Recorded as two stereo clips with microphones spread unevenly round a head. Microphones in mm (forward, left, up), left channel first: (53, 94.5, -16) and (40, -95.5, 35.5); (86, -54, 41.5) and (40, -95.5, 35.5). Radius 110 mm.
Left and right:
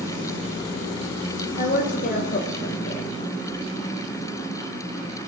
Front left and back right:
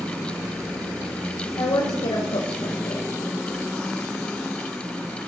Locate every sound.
1.6 s a woman speaking: 40° left, 2 m